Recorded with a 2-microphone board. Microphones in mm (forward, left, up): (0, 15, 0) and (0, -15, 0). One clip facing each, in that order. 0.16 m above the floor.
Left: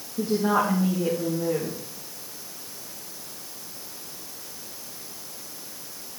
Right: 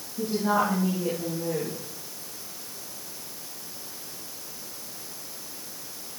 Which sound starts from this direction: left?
A woman speaking, at 0.2 s.